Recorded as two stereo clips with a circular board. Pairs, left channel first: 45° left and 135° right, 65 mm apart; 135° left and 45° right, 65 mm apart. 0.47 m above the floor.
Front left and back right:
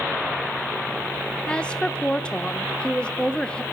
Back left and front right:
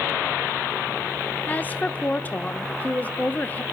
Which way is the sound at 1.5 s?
105° left.